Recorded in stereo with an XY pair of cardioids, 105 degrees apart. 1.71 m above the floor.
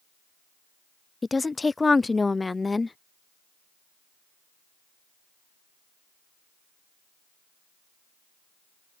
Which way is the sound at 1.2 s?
20° left.